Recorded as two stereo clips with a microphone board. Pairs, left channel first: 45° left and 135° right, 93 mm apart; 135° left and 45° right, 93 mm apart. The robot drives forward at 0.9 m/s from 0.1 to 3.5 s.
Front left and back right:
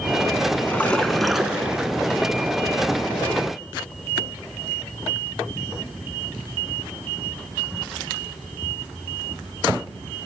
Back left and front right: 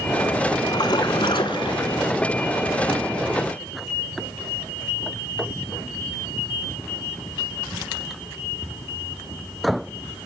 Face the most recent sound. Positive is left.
turn(degrees=165)